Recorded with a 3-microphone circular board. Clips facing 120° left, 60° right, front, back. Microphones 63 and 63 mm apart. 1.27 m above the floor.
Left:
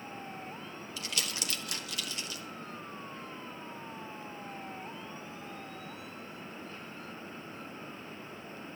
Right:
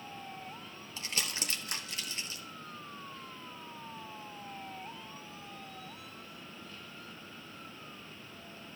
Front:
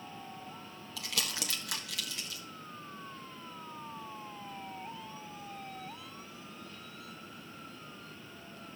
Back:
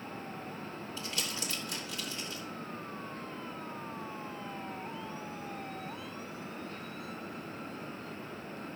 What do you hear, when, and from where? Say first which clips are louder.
1.0 s crumpling: even, front 2 dB; 5° right, 1.3 m